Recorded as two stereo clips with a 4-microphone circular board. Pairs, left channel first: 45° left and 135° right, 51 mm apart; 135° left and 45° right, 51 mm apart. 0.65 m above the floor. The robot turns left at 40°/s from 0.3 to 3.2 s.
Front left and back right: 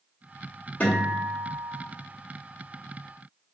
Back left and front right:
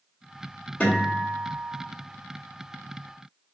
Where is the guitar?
90° left, 1.4 m; by 1.8 s 50° left, 1.4 m.